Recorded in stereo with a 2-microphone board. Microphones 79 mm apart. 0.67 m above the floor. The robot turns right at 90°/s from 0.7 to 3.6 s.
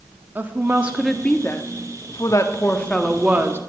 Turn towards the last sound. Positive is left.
turn(degrees=-130)